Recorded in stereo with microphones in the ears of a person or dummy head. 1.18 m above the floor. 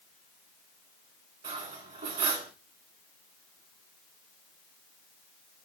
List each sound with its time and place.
1.4 s cutlery clinking: 35° right (ahead or behind), 1.5 m